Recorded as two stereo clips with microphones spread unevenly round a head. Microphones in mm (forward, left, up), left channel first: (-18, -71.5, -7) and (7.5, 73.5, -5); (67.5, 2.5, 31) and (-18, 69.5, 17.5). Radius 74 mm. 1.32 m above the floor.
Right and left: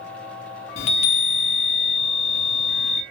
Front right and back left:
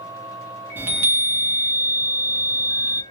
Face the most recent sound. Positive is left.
turn(degrees=-145)